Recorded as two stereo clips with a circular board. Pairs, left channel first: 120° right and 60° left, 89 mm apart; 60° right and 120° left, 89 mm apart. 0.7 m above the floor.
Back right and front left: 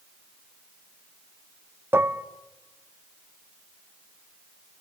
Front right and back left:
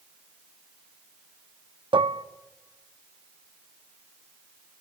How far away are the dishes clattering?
About 0.6 m.